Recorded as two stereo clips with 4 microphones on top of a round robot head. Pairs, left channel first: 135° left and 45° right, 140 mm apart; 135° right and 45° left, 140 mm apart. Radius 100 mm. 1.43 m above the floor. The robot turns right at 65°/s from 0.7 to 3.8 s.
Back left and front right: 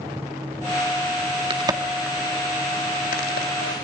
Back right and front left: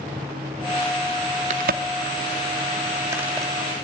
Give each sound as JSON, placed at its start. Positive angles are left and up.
{"t": 1.5, "sound": "a crack", "azimuth_deg": 10, "distance_m": 1.9}